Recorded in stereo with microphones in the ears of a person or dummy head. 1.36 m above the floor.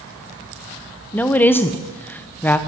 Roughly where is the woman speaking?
Centre.